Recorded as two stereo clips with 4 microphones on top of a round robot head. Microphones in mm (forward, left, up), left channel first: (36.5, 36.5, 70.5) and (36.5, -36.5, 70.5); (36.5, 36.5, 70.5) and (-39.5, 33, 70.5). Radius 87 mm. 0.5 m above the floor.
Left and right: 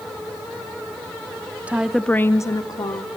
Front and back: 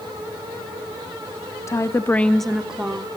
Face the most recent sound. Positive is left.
turn(degrees=110)